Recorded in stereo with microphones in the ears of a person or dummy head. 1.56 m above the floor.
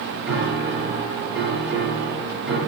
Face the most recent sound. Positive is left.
turn(degrees=-5)  # may be behind; listen again after turning